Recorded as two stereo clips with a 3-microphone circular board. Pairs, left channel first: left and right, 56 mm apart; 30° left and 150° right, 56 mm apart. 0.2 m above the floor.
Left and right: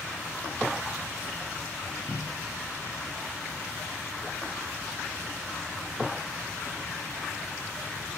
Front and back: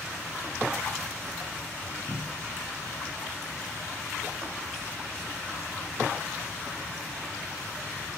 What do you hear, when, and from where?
2.1 s a cupboard door: 160° left, 1.9 m